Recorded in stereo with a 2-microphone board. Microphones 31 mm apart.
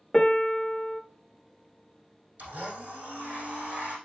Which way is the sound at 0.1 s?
15° left (ahead or behind).